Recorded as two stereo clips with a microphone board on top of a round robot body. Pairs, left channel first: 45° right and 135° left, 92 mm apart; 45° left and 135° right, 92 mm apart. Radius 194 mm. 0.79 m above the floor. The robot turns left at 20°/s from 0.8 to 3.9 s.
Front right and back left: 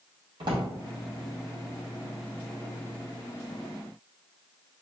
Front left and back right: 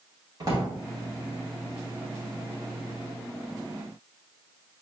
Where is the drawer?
170° left, 0.8 m.